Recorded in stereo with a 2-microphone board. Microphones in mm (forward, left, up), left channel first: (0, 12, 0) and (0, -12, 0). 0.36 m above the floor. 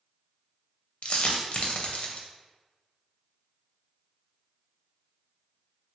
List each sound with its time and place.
1.0 s a dropped coin: 60° left (ahead or behind), 0.5 m